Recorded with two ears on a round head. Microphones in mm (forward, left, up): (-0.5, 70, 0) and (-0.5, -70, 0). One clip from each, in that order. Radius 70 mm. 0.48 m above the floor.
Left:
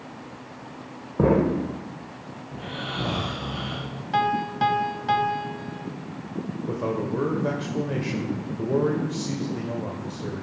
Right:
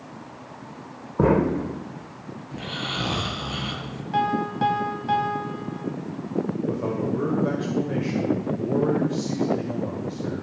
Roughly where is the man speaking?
Left.